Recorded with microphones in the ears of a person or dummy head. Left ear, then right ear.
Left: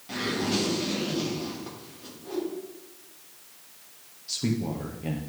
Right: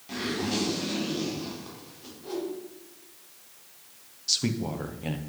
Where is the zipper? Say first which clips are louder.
Left 2 dB; 5° right (ahead or behind), 3 m.